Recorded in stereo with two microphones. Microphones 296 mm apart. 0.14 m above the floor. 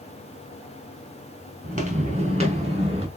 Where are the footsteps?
25° right (ahead or behind), 2.5 m; by 3.1 s 20° right (ahead or behind), 3.5 m.